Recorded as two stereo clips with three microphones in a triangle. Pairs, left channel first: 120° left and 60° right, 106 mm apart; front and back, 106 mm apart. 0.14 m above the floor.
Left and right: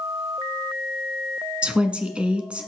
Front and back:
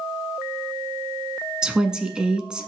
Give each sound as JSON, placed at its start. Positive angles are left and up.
{"t": 1.6, "sound": "a woman speaking", "azimuth_deg": -115, "distance_m": 1.1}